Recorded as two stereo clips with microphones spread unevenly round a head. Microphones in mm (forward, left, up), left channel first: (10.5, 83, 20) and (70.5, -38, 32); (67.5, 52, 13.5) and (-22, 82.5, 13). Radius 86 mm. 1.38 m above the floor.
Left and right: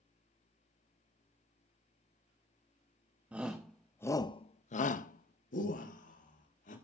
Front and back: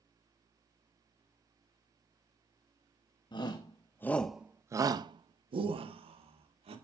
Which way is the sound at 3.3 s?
20° left.